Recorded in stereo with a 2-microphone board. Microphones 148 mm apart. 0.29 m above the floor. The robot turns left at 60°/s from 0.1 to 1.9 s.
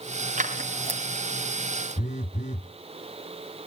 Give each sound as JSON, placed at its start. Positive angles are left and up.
{"t": 0.4, "sound": "scissors", "side_deg": -55, "distance_m": 2.5}
{"t": 2.0, "sound": "a phone buzzing", "side_deg": 55, "distance_m": 0.8}